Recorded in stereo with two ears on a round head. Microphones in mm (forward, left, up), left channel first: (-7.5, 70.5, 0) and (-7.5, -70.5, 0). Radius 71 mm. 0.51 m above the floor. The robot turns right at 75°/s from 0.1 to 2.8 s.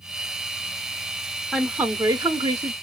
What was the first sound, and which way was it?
A woman speaking, 5° right (ahead or behind).